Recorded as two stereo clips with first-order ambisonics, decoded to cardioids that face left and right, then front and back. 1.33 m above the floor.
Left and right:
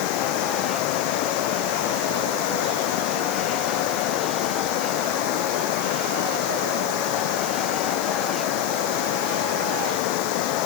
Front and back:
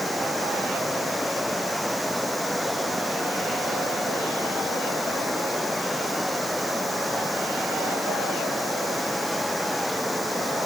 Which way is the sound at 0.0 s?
85° left.